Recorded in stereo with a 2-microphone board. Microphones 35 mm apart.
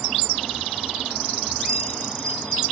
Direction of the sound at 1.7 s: 15° left (ahead or behind).